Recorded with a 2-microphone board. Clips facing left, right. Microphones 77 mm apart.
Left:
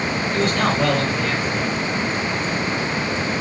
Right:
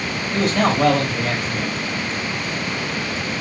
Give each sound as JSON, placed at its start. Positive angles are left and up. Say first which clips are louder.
{"t": 0.3, "sound": "a man speaking", "louder": "right 3 dB", "side_deg": -80, "distance_m": 3.0}